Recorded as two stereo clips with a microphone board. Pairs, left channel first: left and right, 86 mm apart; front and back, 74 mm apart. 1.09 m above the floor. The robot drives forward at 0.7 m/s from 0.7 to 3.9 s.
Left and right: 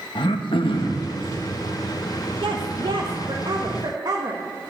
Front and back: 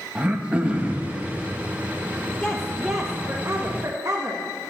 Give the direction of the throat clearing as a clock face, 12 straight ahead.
8 o'clock.